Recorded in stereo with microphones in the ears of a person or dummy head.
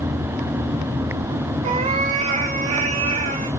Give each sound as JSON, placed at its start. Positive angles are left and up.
{"t": 1.6, "sound": "a cat meowing", "side_deg": -25, "distance_m": 0.6}